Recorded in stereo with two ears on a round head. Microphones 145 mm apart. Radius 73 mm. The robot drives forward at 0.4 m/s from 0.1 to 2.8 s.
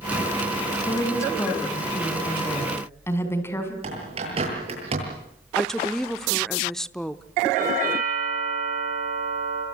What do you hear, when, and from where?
0.9 s a woman speaking: 20° left (ahead or behind), 3.5 m; by 3.7 s 15° left (ahead or behind), 4.5 m
3.8 s a bird: 40° right (ahead or behind), 9.5 m
5.6 s a woman speaking: 5° left (ahead or behind), 0.7 m
7.5 s a doorbell: 55° right (ahead or behind), 9 m